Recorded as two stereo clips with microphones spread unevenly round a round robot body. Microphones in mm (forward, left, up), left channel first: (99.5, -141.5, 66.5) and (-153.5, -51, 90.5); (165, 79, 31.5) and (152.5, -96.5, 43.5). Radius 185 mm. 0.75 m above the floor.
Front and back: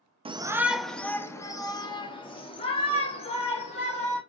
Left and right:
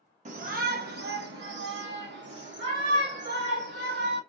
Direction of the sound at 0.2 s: 130° right.